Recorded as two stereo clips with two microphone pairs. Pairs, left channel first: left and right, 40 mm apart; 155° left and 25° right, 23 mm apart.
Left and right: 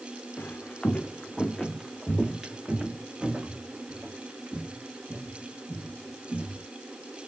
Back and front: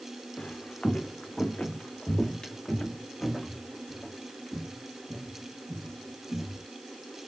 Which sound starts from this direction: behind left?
Footsteps, at 0.4 s.